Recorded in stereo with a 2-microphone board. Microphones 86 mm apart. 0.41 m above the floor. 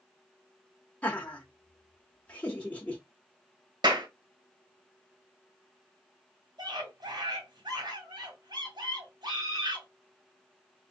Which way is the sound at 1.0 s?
15° left (ahead or behind).